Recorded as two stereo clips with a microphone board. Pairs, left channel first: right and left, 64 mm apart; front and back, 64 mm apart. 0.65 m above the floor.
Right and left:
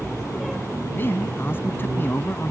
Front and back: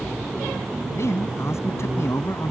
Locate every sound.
0.9 s a man speaking: 40° right